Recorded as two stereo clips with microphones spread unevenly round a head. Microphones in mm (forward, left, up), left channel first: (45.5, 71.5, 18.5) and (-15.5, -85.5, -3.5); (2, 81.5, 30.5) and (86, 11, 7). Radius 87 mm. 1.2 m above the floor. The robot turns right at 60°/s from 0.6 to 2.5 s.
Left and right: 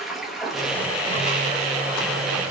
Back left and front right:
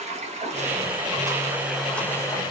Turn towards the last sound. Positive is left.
turn(degrees=90)